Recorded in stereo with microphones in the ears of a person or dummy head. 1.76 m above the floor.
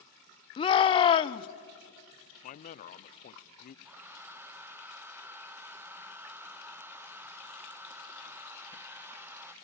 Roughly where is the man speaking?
Left.